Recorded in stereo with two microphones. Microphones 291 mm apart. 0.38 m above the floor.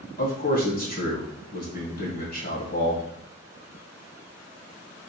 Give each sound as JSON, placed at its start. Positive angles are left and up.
{"t": 0.2, "sound": "a man speaking", "side_deg": 30, "distance_m": 2.0}